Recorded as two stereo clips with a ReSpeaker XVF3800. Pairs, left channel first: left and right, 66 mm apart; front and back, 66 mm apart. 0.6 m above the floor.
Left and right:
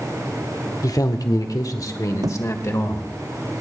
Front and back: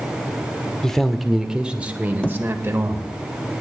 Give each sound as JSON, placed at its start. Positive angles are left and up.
{"t": 0.8, "sound": "a man speaking", "azimuth_deg": 80, "distance_m": 1.3}
{"t": 2.2, "sound": "a thud", "azimuth_deg": -75, "distance_m": 0.7}